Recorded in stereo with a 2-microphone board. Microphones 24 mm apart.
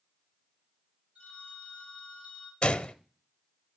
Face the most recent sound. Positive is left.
turn(degrees=40)  # may be behind; listen again after turning